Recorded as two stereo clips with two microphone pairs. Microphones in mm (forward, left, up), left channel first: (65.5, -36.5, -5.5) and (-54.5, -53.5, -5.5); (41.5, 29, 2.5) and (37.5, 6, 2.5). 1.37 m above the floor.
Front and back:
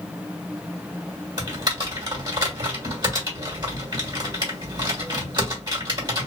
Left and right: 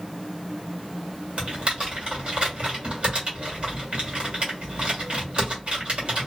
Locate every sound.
1.4 s typing on a keyboard: 130° right, 1.5 m